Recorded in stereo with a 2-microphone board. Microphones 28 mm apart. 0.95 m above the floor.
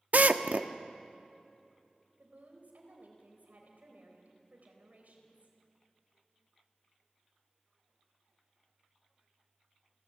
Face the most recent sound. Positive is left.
turn(degrees=-70)  # may be behind; listen again after turning